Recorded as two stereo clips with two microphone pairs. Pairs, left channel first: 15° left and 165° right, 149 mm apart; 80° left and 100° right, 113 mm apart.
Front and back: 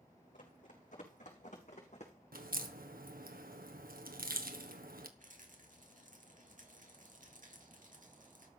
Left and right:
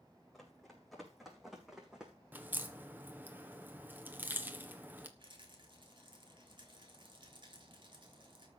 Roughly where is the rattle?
Behind right.